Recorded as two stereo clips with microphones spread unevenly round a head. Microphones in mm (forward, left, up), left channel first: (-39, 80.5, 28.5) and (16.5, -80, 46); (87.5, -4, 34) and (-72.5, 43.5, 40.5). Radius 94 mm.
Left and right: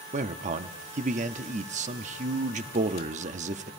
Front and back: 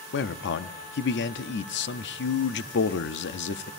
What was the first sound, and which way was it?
A man speaking, 20° right.